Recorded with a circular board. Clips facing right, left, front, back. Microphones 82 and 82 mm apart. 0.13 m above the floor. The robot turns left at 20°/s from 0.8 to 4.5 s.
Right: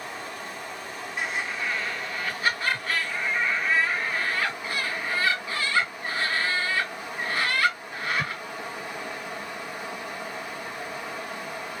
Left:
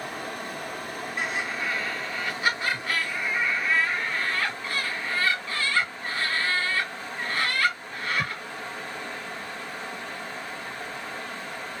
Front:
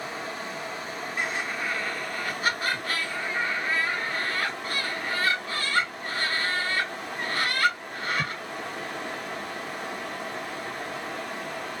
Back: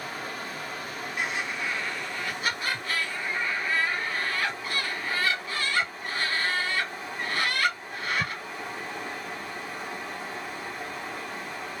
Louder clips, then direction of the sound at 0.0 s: Left 2 dB, front 1 dB; 60° left.